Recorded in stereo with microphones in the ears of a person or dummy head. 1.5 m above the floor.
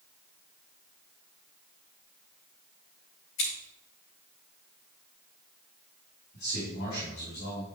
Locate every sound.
3.4 s scissors: 65° left (ahead or behind), 3.5 m
6.3 s a man speaking: 55° left (ahead or behind), 3.5 m